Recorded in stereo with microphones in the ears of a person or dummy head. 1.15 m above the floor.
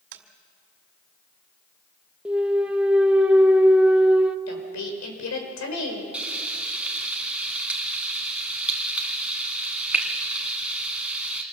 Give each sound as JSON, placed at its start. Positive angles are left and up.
{"t": 0.1, "sound": "tapping", "side_deg": -70, "distance_m": 2.0}
{"t": 2.2, "sound": "a clunk", "side_deg": -10, "distance_m": 0.7}
{"t": 4.5, "sound": "a woman speaking", "side_deg": 85, "distance_m": 4.5}
{"t": 6.1, "sound": "frying", "side_deg": -5, "distance_m": 1.5}